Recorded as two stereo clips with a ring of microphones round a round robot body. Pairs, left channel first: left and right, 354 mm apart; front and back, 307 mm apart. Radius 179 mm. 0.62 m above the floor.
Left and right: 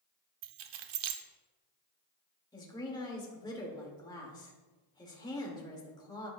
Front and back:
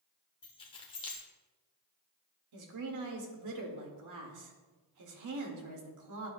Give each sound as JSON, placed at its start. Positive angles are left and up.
{"t": 0.4, "sound": "keys jangling", "azimuth_deg": -75, "distance_m": 1.0}
{"t": 2.5, "sound": "a woman speaking", "azimuth_deg": 170, "distance_m": 2.0}